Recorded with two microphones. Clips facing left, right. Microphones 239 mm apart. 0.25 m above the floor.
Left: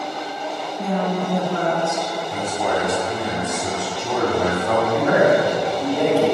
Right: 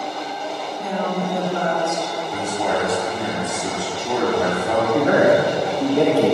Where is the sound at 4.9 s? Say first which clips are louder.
Right 2 dB; 30° right (ahead or behind), 1.5 m.